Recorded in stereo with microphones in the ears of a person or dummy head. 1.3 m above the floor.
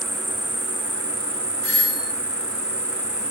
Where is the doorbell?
60° left (ahead or behind), 6.5 m.